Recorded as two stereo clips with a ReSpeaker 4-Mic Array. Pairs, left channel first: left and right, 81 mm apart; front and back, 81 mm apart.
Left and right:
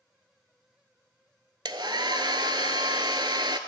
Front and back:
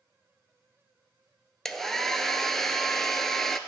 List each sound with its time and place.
1.6 s a hair dryer: 85° right, 0.6 m